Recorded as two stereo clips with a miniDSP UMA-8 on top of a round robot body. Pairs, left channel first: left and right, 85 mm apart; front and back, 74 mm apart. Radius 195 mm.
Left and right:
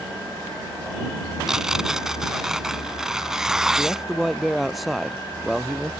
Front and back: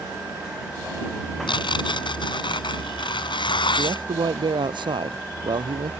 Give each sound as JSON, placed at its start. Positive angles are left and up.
{"t": 1.5, "sound": "tearing paper", "azimuth_deg": -5}
{"t": 3.8, "sound": "a man speaking", "azimuth_deg": 180}